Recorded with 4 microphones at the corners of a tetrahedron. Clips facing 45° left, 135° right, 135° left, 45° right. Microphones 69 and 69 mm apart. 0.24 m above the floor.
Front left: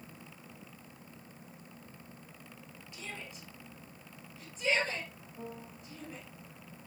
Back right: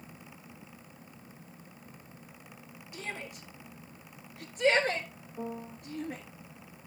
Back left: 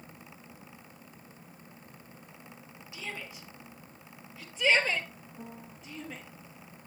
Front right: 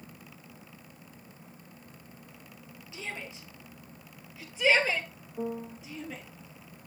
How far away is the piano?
About 0.7 m.